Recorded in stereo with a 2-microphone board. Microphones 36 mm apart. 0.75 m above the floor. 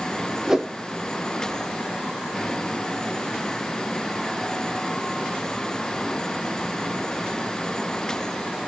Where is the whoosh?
20° right (ahead or behind), 0.5 m.